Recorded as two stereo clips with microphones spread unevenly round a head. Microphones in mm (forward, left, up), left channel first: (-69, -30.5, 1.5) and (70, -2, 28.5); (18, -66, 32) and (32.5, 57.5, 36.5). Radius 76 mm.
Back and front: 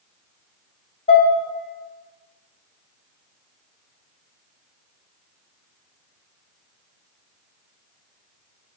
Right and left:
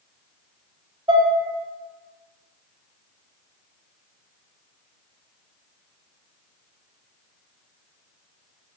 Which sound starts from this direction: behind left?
Dishes clattering, at 1.1 s.